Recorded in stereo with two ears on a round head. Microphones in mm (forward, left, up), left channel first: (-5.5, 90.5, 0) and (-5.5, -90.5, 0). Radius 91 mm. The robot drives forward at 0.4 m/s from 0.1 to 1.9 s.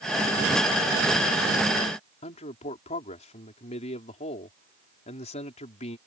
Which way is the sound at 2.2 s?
35° left (ahead or behind).